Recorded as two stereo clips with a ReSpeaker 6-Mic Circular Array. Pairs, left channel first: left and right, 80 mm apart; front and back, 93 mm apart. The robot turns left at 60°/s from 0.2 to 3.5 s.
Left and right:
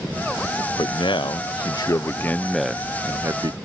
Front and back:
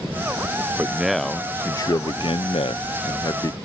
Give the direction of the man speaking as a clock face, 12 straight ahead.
8 o'clock.